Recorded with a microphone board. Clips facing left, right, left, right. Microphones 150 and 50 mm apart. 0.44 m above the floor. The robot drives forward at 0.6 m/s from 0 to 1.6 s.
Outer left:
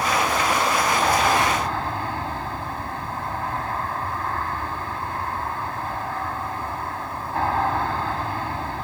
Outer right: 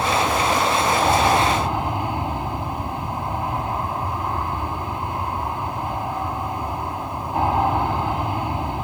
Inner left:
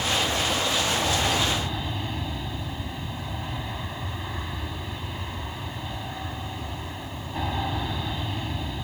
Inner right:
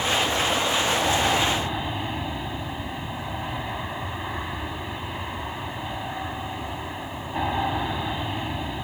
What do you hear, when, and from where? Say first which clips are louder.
0.0 s an aircraft: outer right 2 dB, inner right 2 dB; 15° right (ahead or behind); by 8.8 s 20° right (ahead or behind)